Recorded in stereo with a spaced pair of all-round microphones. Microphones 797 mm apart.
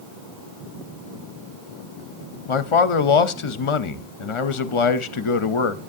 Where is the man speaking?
45° left (ahead or behind), 0.6 m.